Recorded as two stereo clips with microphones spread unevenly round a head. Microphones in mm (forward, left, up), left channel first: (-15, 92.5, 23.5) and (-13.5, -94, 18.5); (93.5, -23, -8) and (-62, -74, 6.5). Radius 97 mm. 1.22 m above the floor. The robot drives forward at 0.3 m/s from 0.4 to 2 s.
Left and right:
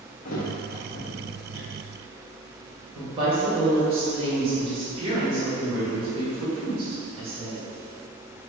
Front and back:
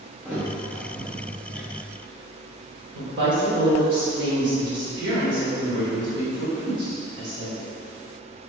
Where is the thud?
120° left, 0.7 m; by 1.7 s 145° left, 1.0 m.